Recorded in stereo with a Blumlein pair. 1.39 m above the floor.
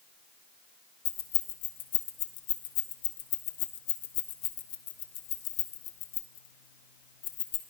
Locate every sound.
1.1 s keys jangling: 50° left, 1.0 m